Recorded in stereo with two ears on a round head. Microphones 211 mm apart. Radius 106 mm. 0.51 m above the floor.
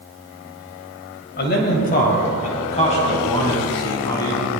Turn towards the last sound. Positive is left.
turn(degrees=20)  # may be behind; listen again after turning